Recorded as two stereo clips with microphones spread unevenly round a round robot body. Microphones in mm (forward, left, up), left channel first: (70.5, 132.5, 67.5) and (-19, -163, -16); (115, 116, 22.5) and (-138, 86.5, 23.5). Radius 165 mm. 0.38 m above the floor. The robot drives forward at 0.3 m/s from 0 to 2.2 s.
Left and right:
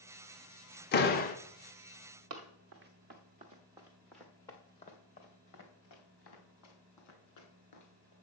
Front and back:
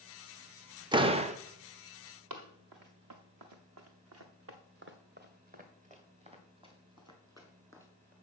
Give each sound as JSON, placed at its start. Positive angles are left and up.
{"t": 0.9, "sound": "a door slam", "azimuth_deg": 130, "distance_m": 0.8}
{"t": 2.3, "sound": "running footsteps", "azimuth_deg": -150, "distance_m": 1.9}